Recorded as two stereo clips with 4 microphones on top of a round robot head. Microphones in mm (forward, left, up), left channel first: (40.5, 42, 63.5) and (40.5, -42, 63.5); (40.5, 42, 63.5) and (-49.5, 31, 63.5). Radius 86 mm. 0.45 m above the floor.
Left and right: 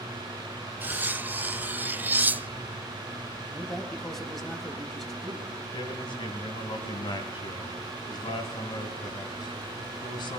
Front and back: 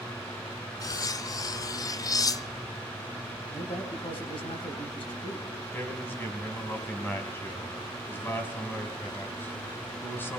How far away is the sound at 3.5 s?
About 4 m.